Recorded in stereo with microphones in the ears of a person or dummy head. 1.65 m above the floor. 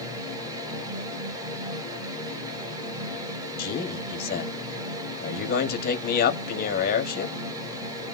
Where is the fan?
15° right (ahead or behind), 1.2 m.